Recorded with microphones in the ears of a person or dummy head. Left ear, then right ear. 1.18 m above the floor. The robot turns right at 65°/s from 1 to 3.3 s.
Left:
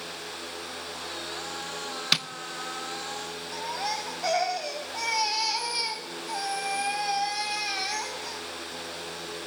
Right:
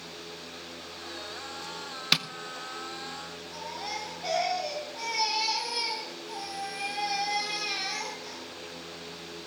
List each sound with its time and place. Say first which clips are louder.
2.1 s tapping: even; centre (ahead or behind), 0.6 m; by 2.3 s 10° left (ahead or behind), 0.6 m
3.5 s a baby crying: left 5 dB; 60° left (ahead or behind), 3 m